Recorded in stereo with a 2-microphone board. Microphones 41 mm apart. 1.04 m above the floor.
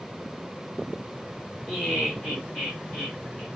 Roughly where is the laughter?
Centre.